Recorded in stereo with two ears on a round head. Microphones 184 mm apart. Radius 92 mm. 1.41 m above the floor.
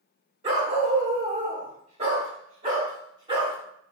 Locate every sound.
0.4 s a dog barking: 30° right (ahead or behind), 1.2 m; by 3.6 s 20° right (ahead or behind), 2 m